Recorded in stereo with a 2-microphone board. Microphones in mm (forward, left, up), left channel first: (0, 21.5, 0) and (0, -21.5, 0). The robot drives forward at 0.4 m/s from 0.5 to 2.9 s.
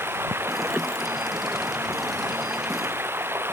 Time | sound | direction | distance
0.0 | running water | 70° right (ahead or behind) | ?